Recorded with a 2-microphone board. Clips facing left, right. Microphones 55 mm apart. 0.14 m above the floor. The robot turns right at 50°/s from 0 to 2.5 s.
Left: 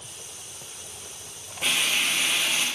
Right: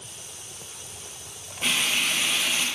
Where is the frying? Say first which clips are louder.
Even; 5° left, 2.5 m; by 2.7 s 50° left, 2.5 m.